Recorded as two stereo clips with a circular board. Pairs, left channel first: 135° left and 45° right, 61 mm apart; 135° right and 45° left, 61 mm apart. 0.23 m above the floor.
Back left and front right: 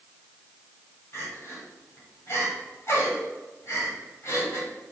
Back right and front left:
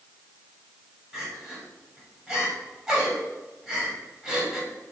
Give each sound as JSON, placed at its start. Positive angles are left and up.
{"t": 1.1, "sound": "crying", "azimuth_deg": 125, "distance_m": 1.5}